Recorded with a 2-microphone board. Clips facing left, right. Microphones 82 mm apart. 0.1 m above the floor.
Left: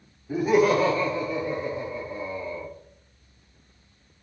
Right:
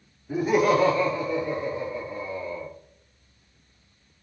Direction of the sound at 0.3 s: 10° right (ahead or behind).